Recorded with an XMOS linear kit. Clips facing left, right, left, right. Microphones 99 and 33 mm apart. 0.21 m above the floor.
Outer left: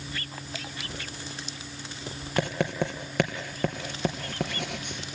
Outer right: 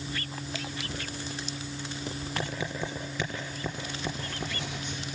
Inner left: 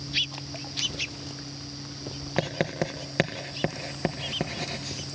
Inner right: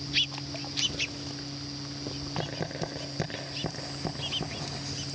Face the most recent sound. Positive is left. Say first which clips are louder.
# outer left 8 dB, inner left 8 dB
turn(degrees=65)  # may be behind; listen again after turning